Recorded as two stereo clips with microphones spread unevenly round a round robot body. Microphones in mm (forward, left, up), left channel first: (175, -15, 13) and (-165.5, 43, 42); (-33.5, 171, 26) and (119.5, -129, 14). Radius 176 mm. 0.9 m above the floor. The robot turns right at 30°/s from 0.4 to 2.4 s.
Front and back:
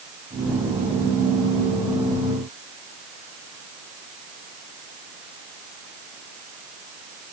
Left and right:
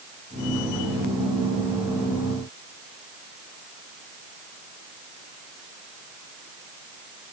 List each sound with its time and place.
Only background noise.